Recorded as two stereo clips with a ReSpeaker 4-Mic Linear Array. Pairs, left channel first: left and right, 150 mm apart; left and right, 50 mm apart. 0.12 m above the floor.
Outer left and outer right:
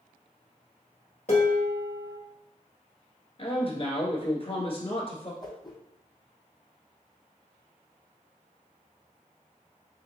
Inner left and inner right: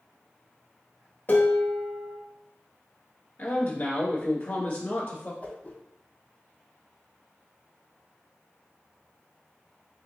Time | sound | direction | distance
1.3 | dishes clattering | 55° left (ahead or behind) | 1.3 m
3.4 | a man speaking | 45° left (ahead or behind) | 1.4 m
5.4 | a whoosh | 30° left (ahead or behind) | 1.1 m